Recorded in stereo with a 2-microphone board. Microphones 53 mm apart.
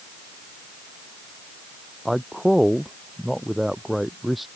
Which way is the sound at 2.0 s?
Centre (ahead or behind).